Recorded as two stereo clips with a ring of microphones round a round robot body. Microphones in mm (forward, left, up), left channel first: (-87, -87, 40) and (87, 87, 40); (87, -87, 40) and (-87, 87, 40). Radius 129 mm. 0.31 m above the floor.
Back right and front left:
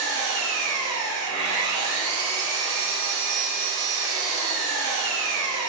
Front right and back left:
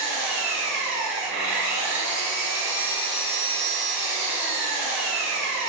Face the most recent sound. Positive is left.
turn(degrees=70)